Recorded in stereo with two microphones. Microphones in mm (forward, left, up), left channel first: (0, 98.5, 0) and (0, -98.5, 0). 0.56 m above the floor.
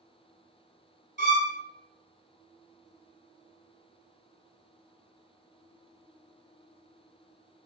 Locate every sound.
1.2 s a violin: 70° right (ahead or behind), 1.0 m